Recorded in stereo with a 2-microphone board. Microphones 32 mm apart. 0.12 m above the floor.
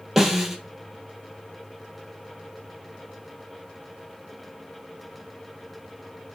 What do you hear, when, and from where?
0.2 s a snare drum: 10° right (ahead or behind), 1.0 m